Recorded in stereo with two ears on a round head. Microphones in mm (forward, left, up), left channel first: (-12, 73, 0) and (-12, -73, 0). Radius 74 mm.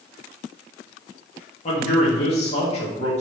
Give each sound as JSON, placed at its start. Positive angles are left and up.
{"t": 1.6, "sound": "a man speaking", "side_deg": 40, "distance_m": 1.9}